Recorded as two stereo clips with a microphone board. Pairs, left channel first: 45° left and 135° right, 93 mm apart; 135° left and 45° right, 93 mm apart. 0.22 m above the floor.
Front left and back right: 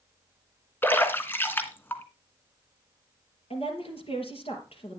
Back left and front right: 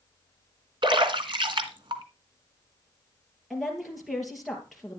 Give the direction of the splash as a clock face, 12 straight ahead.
1 o'clock.